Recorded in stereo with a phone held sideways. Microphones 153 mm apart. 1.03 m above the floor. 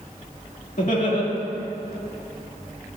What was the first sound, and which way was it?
Laughter, 60° left (ahead or behind).